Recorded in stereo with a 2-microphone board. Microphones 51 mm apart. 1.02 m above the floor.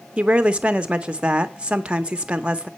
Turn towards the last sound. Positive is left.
turn(degrees=-25)  # may be behind; listen again after turning